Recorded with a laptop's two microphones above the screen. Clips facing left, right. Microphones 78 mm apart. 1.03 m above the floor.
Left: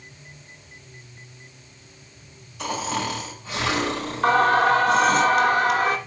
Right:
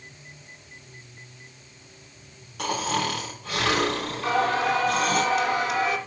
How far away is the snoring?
About 3.5 m.